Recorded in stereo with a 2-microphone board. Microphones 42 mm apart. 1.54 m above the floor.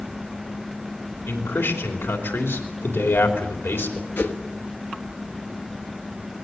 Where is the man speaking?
75° left (ahead or behind), 3.5 m.